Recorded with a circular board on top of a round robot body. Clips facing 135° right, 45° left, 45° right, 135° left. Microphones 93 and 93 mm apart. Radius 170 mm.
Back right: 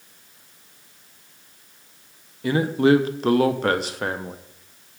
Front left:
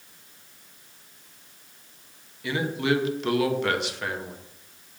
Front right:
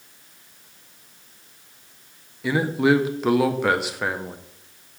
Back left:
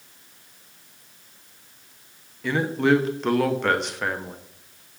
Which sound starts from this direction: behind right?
A man speaking, at 2.4 s.